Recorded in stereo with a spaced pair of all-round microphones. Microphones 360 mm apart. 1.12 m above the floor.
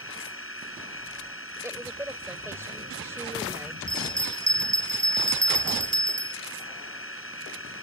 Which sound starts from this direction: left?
A machine running, at 0.0 s.